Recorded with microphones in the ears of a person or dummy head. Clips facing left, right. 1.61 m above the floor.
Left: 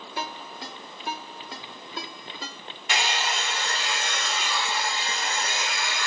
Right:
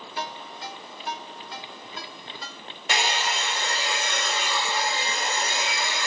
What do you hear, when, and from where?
0.2 s a ringtone: 50° left (ahead or behind), 1.5 m
2.9 s a hair dryer: 35° right (ahead or behind), 0.9 m